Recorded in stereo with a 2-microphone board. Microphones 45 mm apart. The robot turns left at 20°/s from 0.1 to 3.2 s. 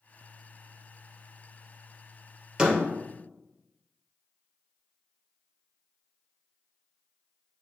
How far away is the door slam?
About 2 m.